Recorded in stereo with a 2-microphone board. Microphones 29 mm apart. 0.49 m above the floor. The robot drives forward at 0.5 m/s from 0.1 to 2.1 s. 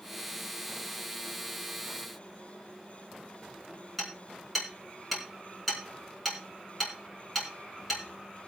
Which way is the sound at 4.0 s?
5° right (ahead or behind).